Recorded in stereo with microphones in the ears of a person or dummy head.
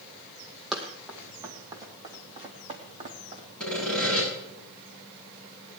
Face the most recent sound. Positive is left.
turn(degrees=5)  # may be behind; listen again after turning